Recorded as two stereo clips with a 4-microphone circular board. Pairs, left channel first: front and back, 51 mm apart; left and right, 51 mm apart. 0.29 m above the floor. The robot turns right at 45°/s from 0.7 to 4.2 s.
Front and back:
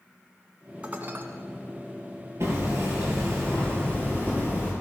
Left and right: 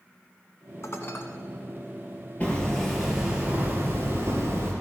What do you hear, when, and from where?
0.8 s dishes clattering: 115° left, 1.6 m; by 1.2 s 135° left, 1.6 m
2.4 s hammering: 155° left, 5 m; by 4.7 s 125° right, 5 m